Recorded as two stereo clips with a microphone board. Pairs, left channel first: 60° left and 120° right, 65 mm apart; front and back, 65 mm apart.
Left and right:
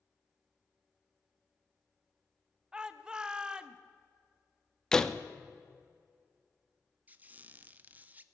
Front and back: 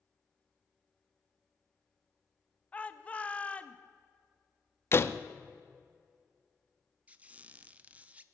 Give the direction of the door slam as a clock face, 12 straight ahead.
12 o'clock.